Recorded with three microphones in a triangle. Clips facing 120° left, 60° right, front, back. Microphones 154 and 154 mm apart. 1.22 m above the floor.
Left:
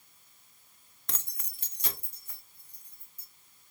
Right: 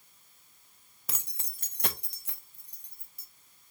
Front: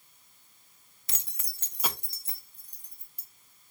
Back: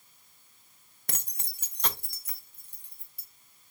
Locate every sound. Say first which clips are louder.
1.1 s keys jangling: right 1 dB, back 6 dB; 145° right, 0.6 m; by 3.3 s 45° right, 1.5 m